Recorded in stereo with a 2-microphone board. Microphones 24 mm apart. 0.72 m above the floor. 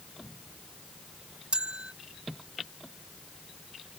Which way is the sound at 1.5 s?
50° right (ahead or behind).